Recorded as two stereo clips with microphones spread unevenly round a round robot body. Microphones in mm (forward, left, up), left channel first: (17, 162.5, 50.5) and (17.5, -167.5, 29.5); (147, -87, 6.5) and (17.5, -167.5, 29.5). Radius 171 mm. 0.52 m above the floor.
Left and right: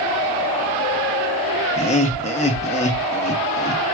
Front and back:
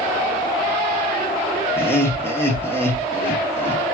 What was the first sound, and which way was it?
Laughter, 45° left.